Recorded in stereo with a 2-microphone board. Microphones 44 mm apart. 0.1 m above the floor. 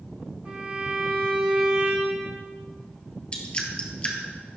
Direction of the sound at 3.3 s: 25° left (ahead or behind).